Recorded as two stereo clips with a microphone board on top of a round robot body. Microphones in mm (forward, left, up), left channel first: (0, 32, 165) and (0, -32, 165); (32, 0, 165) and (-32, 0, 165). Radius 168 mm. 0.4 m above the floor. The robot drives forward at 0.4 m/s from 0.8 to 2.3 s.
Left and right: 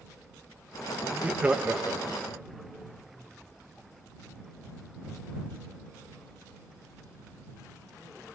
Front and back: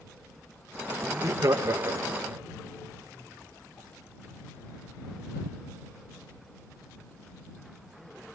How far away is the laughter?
About 1.8 m.